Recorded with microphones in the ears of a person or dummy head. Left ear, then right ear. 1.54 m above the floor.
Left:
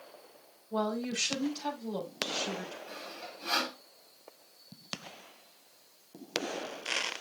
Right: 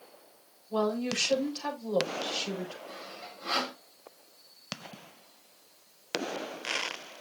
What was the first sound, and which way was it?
A woman speaking, 60° right (ahead or behind).